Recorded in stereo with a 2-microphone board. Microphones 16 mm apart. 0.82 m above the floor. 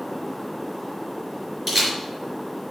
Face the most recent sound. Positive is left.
turn(degrees=-5)  # may be behind; listen again after turning